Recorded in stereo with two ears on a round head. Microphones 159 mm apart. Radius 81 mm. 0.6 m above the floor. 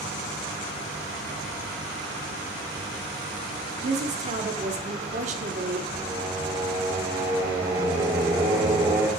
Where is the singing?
20° right (ahead or behind), 1.4 m.